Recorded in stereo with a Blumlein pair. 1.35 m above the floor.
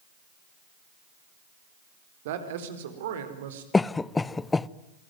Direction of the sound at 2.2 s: 55° right.